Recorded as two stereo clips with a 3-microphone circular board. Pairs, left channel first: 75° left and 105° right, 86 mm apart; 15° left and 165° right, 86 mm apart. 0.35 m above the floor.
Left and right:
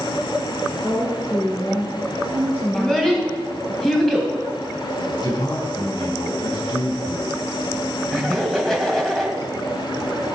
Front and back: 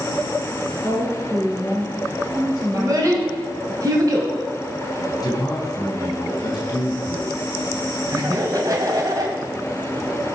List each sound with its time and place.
0.8 s a woman speaking: 135° left, 4.5 m
2.7 s a child speaking: 160° left, 1.8 m
5.2 s a man speaking: 55° left, 3.5 m
8.1 s laughter: 160° left, 2.5 m